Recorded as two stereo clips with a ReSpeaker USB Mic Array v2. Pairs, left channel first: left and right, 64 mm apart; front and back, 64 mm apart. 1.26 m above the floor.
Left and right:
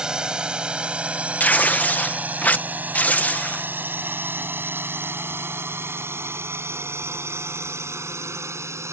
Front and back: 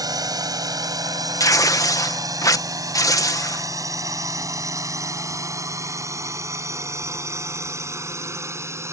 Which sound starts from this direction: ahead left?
Tearing paper, at 1.4 s.